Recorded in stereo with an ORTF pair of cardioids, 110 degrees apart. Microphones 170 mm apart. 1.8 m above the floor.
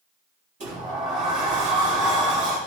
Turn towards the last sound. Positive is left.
turn(degrees=-50)